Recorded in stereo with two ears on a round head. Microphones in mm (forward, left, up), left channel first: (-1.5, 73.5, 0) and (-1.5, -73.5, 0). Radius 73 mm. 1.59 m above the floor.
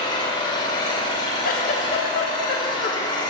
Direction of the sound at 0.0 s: 30° left (ahead or behind).